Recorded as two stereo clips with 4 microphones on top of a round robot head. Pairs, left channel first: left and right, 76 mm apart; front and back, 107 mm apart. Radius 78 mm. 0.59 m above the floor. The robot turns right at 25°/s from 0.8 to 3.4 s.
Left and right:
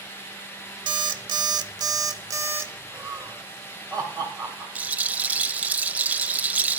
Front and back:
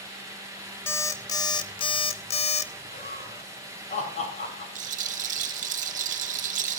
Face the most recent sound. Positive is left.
turn(degrees=-160)